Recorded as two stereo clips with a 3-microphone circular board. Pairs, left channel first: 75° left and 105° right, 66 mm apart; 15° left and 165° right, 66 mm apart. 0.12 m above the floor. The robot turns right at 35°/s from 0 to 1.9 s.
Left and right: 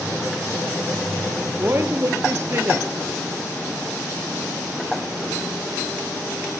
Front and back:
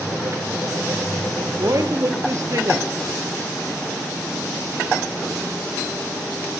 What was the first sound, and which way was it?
A woman speaking, 160° right.